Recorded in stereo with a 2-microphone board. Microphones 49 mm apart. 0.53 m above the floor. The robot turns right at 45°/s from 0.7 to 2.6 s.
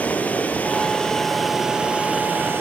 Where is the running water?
150° left, 3 m; by 2.6 s 125° right, 3 m.